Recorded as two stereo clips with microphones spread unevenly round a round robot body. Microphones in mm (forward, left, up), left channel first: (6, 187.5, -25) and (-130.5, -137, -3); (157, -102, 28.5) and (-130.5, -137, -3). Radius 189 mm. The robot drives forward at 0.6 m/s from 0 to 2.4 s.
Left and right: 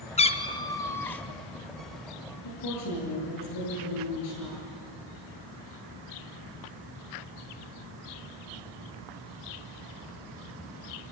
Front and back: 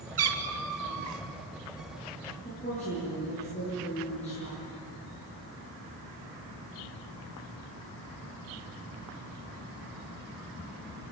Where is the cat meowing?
140° left, 1.2 m; by 1.2 s 155° left, 1.7 m.